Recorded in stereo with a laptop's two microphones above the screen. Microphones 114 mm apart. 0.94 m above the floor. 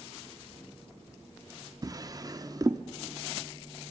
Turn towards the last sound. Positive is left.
turn(degrees=-35)  # may be behind; listen again after turning